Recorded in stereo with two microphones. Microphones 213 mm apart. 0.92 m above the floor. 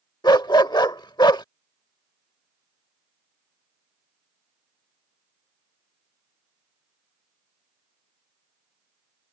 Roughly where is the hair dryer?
No hair dryer in this recording.